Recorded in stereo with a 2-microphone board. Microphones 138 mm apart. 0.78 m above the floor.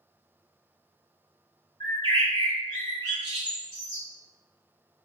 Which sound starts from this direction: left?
A bird, at 1.8 s.